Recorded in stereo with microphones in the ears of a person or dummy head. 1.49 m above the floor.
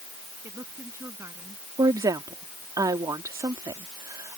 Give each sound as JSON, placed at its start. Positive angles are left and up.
{"t": 0.4, "sound": "a woman speaking", "side_deg": -10}
{"t": 1.8, "sound": "a woman speaking", "side_deg": -15}